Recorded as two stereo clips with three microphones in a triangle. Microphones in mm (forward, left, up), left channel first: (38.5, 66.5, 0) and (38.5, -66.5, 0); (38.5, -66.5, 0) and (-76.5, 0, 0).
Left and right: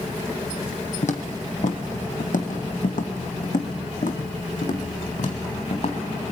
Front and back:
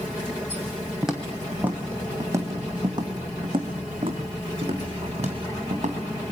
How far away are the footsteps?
About 2.5 m.